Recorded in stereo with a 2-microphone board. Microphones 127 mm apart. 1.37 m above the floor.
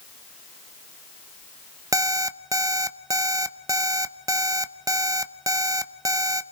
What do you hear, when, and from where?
1.9 s an alarm clock: 30° right (ahead or behind), 0.6 m